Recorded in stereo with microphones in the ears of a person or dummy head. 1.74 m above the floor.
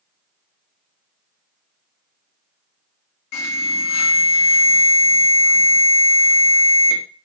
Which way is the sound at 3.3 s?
85° left.